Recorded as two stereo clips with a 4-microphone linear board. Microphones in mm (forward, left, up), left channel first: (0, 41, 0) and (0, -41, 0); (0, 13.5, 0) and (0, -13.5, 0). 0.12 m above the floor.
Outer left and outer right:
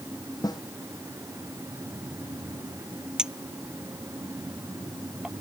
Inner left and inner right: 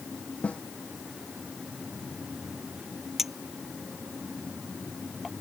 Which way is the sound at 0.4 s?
60° left (ahead or behind).